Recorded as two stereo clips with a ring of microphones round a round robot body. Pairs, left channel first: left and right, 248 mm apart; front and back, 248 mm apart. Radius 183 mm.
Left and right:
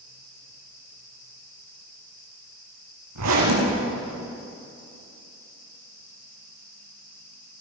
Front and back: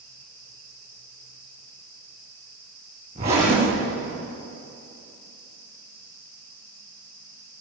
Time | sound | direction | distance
3.1 | a zipper | 110° right | 7.5 m